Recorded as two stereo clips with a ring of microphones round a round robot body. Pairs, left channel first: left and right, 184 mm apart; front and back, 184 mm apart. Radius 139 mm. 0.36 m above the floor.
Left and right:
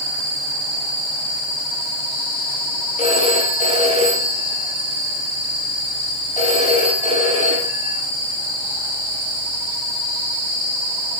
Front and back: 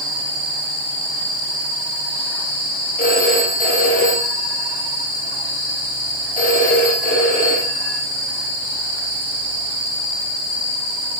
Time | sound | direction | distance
3.0 | a phone ringing | 45° left | 9.5 m